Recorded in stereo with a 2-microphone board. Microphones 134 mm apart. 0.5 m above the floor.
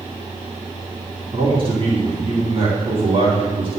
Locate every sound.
1.3 s a man speaking: 45° right (ahead or behind), 3 m